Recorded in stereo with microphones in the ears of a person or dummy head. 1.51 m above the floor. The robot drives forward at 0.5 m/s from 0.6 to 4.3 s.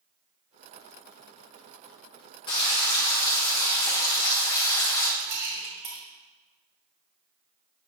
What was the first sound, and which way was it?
Frying, 25° left (ahead or behind).